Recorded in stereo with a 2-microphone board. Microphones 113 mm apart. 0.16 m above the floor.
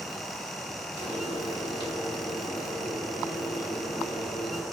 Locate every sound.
1.0 s frying: 50° left (ahead or behind), 3 m